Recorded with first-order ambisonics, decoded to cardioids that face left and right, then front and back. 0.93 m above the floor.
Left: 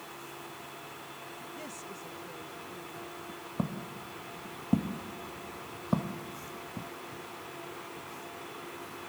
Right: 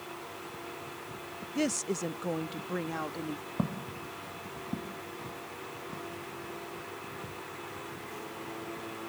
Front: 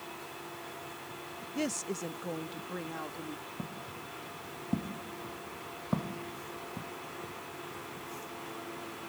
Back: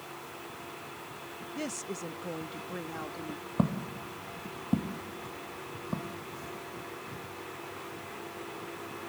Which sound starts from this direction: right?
A woman speaking, at 1.6 s.